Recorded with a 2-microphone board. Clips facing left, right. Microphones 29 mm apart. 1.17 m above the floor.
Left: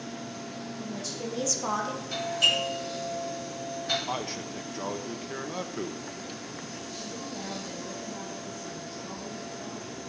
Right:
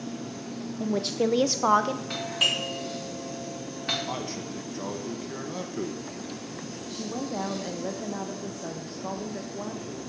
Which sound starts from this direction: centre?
A man speaking, at 4.1 s.